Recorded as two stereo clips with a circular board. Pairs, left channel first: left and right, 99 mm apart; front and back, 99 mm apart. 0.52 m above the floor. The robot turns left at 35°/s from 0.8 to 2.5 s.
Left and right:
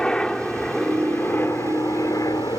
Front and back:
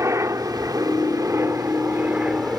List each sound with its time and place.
0.0 s a helicopter: 165° left; by 2.6 s 100° left